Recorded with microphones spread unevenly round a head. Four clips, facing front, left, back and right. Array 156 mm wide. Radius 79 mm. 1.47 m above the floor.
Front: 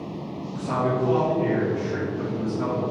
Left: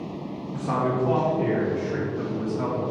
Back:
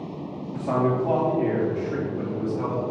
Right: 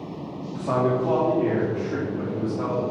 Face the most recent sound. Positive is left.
turn(degrees=-125)